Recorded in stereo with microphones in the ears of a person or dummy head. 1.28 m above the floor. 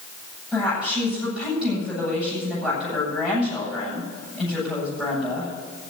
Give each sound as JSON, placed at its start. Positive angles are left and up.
{"t": 0.5, "sound": "a woman speaking", "side_deg": -5, "distance_m": 8.5}